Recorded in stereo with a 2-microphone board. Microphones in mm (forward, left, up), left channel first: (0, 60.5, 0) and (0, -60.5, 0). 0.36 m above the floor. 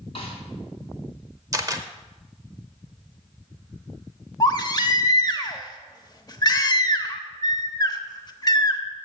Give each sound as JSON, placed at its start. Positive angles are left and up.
{"t": 0.1, "sound": "a snare drum", "side_deg": 50, "distance_m": 2.5}
{"t": 1.5, "sound": "a camera shutter", "side_deg": -30, "distance_m": 0.7}
{"t": 4.4, "sound": "a baby crying", "side_deg": 35, "distance_m": 0.7}